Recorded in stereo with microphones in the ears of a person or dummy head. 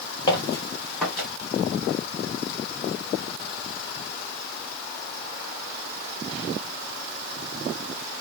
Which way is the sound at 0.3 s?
25° left (ahead or behind).